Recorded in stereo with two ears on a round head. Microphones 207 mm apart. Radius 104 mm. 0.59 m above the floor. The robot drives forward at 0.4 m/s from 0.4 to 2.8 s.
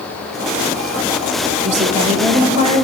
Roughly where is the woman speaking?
Right.